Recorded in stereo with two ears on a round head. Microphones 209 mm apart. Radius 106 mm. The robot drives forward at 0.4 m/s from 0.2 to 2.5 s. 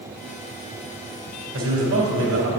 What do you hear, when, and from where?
1.5 s a man speaking: 60° right (ahead or behind), 2.5 m; by 2.5 s 65° right (ahead or behind), 2.5 m